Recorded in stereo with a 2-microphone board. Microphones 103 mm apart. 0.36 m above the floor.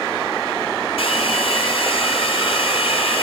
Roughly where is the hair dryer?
Left.